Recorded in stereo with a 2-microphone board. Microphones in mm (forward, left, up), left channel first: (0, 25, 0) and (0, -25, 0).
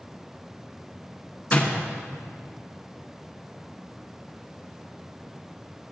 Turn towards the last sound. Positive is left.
turn(degrees=25)  # may be behind; listen again after turning